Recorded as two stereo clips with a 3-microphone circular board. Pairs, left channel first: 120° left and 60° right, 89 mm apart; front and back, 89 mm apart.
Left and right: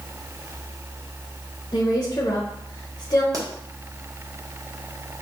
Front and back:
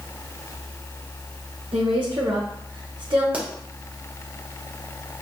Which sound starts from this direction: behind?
A woman speaking, at 1.7 s.